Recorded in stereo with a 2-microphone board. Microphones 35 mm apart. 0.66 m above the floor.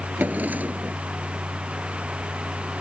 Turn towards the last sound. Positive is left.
turn(degrees=-50)  # may be behind; listen again after turning